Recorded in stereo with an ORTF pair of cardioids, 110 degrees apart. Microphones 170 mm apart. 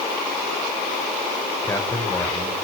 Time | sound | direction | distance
1.6 | a man speaking | 10° left | 5.5 m